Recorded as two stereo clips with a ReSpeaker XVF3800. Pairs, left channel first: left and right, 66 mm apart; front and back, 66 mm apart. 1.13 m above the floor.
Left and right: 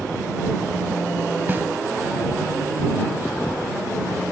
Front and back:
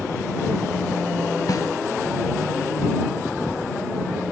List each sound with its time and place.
1.5 s a snare drum: 30° right